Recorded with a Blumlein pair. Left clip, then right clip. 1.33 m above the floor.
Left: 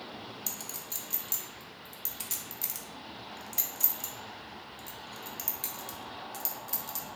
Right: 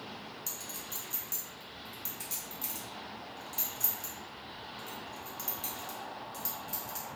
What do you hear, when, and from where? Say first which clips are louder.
0.5 s a clink: left 1 dB; 20° left, 0.6 m